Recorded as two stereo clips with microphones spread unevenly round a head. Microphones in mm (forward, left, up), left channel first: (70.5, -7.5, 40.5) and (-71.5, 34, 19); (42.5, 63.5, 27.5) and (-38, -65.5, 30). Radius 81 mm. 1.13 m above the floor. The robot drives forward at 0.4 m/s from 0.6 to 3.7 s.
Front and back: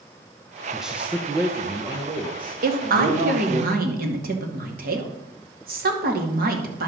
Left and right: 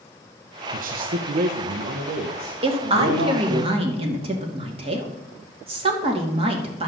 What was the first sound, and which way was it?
A man speaking, 115° right.